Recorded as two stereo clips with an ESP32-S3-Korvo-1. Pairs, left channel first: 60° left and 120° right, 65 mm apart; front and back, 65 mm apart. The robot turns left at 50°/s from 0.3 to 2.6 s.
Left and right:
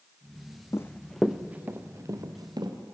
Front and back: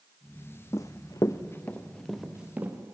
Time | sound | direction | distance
0.7 | running footsteps | 25° left | 0.7 m